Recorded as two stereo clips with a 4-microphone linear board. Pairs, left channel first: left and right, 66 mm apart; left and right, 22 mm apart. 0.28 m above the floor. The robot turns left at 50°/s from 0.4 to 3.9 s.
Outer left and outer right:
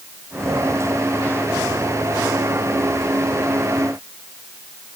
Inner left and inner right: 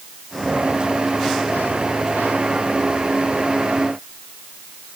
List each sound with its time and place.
Only background noise.